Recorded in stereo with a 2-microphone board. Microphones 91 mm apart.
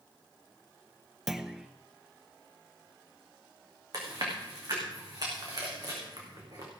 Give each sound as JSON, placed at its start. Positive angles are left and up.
{"t": 1.3, "sound": "a clunk", "side_deg": -5, "distance_m": 0.7}
{"t": 3.9, "sound": "chewing", "side_deg": -45, "distance_m": 4.0}